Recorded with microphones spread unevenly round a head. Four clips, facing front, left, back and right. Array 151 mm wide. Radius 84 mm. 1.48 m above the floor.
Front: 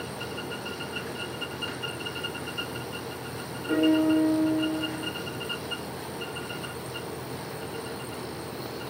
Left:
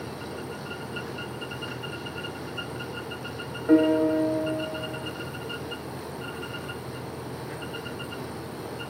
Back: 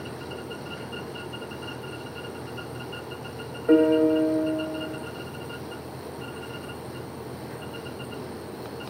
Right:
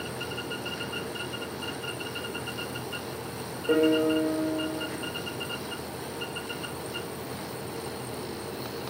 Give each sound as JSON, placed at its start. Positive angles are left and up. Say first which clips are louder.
{"t": 3.7, "sound": "a piano", "louder": "left 3 dB, back 4 dB", "azimuth_deg": 175, "distance_m": 2.5}